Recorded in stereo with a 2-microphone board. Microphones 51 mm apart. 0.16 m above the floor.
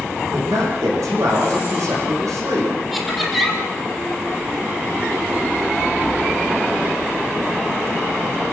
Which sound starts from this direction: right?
A man speaking, at 0.2 s.